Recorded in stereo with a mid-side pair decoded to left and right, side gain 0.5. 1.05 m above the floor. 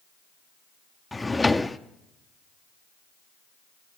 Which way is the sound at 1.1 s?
15° left.